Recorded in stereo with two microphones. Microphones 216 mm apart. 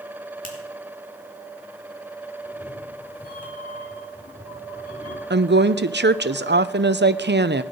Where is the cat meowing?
20° left (ahead or behind), 8 m.